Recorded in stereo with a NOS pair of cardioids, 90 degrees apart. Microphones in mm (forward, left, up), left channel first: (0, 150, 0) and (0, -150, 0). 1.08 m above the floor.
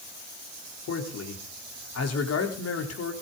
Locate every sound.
0.9 s a man speaking: 55° left, 3.5 m